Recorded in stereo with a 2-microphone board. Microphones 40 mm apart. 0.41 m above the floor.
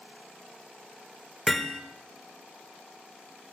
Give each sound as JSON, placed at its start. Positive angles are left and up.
{"t": 1.5, "sound": "hammering", "side_deg": 5, "distance_m": 1.1}